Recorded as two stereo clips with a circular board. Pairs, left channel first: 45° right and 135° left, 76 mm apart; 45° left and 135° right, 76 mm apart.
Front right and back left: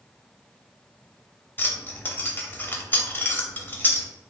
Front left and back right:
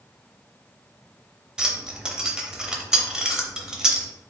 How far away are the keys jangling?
About 0.6 m.